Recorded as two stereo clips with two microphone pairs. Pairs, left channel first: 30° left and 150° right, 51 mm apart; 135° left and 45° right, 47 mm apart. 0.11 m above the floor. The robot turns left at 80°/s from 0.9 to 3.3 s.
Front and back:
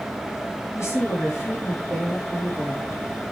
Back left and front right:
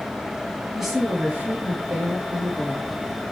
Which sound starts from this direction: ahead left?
A woman speaking, at 0.7 s.